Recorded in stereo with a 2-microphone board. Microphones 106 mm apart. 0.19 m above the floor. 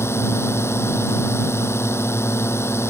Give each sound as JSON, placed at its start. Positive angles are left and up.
{"t": 0.0, "sound": "a drone", "side_deg": 25}